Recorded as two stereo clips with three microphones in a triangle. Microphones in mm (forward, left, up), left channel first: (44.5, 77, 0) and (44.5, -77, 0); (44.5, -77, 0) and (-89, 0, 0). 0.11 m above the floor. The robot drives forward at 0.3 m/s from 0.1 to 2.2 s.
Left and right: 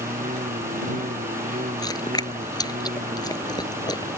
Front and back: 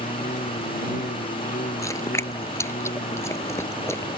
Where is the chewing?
35° left.